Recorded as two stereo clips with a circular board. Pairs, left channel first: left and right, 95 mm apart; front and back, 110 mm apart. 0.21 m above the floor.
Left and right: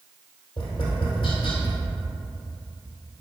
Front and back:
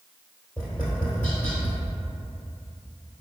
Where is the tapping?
75° left, 1.7 m.